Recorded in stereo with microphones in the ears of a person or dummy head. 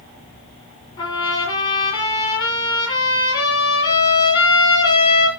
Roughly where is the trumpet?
Left.